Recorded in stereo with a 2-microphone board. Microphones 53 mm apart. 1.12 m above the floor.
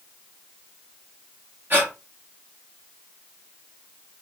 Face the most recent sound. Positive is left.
turn(degrees=-35)  # may be behind; listen again after turning